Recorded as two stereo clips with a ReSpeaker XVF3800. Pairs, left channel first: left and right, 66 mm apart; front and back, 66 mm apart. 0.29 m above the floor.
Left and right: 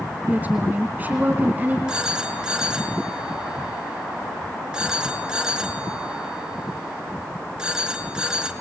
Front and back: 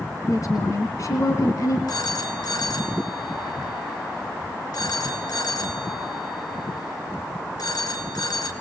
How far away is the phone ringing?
About 2.5 m.